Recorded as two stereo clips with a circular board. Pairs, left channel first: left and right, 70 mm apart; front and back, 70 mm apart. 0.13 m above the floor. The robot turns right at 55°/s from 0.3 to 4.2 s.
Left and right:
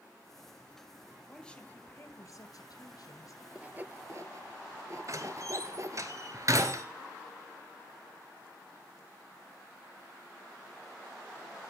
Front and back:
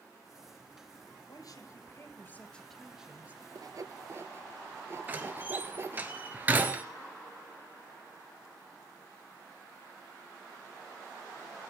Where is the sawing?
165° right, 0.7 m; by 6.1 s 130° right, 0.7 m.